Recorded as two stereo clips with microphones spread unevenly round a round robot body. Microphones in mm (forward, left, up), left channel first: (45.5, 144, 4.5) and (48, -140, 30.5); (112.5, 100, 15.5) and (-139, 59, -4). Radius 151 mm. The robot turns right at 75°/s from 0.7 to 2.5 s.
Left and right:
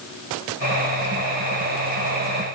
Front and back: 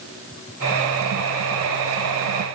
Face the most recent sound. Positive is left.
No sound to turn to.